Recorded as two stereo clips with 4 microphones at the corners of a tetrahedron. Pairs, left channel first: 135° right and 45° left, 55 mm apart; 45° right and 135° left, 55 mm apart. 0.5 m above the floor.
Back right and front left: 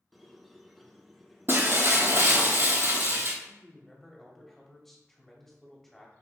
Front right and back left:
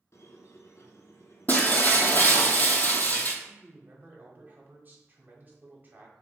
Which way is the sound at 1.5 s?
5° left.